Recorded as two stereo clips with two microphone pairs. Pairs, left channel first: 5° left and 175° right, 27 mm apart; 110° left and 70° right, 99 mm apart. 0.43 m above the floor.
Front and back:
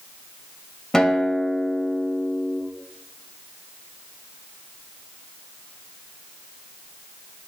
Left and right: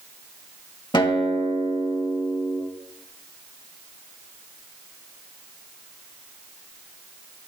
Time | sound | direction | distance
0.9 | a guitar | 75° left | 1.2 m